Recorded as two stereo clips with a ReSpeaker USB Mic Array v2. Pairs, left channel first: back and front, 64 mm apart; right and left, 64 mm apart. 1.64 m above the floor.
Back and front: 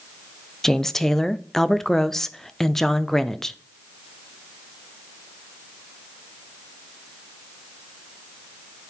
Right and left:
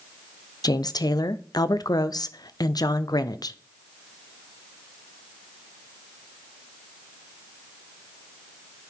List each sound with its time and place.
0.6 s a woman speaking: 95° right, 0.6 m